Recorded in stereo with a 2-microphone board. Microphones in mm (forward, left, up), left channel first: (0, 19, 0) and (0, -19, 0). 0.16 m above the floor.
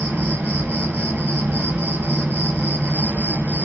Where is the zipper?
No zipper in this recording.